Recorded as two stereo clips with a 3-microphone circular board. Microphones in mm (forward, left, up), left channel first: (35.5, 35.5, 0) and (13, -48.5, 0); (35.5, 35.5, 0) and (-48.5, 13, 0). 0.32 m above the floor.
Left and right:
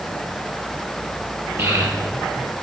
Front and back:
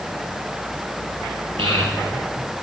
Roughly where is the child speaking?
Behind.